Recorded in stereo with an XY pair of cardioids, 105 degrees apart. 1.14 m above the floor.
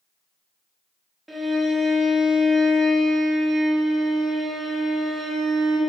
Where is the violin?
15° right, 0.6 m.